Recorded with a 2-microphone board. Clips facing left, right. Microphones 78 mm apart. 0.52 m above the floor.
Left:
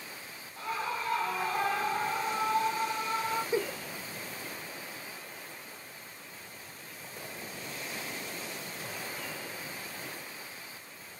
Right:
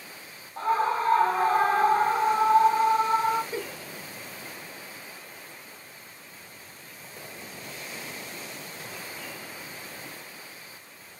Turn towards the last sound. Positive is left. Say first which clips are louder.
# left 3 dB
turn(degrees=15)  # may be behind; listen again after turning